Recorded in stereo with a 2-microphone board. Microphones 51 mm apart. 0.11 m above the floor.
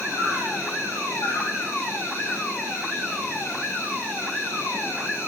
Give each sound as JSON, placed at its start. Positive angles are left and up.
{"t": 0.0, "sound": "an insect", "side_deg": 55, "distance_m": 3.0}